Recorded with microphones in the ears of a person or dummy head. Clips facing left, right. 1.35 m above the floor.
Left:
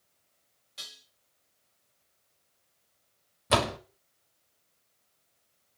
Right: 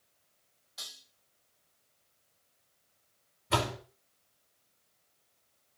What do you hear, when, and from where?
0.8 s dishes clattering: 35° left (ahead or behind), 3.5 m
3.5 s a door slam: 65° left (ahead or behind), 1.0 m